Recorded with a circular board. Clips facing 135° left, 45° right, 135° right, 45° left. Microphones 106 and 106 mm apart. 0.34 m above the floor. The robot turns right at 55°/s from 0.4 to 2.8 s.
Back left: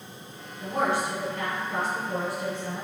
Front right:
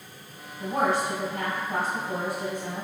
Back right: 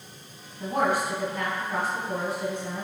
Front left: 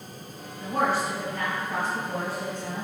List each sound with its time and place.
0.6 s a woman speaking: 85° right, 1.6 m; by 2.9 s 35° left, 1.6 m